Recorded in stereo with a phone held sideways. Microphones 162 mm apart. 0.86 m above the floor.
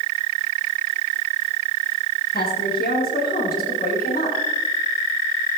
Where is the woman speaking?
80° left, 6.5 m; by 4.4 s 60° left (ahead or behind), 7.5 m.